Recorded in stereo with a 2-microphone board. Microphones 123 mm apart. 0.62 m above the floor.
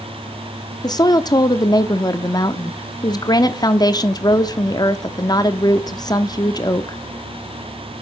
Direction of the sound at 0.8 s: 30° left (ahead or behind).